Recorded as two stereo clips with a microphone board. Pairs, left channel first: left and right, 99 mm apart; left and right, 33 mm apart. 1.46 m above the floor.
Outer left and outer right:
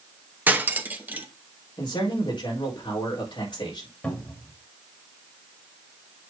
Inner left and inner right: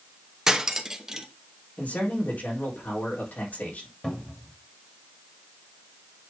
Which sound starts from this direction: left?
A man speaking, at 1.8 s.